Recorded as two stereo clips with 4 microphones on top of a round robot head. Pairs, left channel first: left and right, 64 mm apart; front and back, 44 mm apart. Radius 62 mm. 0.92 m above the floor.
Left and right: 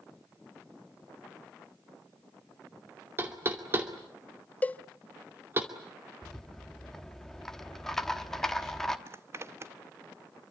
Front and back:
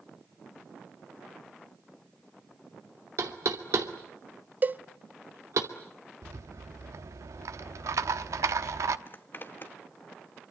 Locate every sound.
3.2 s knocking: 150° right, 2.5 m
4.6 s a cowbell: 145° left, 0.6 m
6.2 s a rattle: 175° left, 0.9 m
9.1 s a zipper: 45° right, 1.2 m